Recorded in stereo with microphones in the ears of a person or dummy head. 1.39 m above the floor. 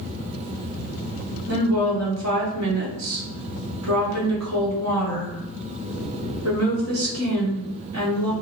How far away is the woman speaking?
About 1.2 m.